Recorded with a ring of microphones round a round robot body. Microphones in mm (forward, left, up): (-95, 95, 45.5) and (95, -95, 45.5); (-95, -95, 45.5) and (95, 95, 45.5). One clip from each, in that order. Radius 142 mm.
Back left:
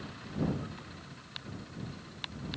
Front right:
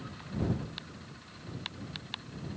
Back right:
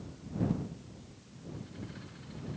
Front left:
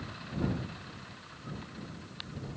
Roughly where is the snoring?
I don't hear snoring.